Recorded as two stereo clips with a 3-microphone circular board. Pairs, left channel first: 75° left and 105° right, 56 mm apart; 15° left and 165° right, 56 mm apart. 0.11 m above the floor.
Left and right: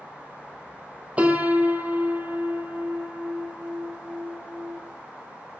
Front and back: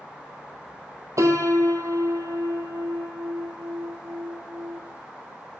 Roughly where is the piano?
Behind.